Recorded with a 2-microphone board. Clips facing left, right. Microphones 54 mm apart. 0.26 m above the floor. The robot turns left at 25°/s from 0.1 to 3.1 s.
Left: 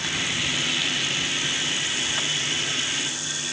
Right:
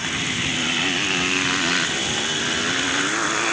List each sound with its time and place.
0.0 s a motorcycle: 15° right (ahead or behind); by 3.5 s 80° right